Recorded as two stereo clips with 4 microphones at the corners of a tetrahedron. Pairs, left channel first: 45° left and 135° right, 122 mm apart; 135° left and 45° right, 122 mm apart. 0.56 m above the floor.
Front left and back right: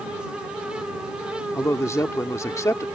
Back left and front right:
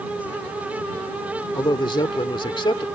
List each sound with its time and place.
1.6 s a man speaking: 105° left